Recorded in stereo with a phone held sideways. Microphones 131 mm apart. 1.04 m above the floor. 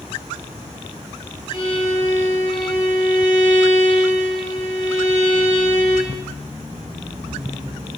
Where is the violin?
35° left (ahead or behind), 9.5 m.